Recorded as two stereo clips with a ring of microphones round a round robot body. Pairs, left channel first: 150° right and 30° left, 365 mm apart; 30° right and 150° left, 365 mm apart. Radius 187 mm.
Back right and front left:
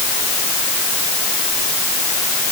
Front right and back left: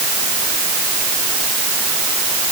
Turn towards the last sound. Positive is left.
No sound to turn to.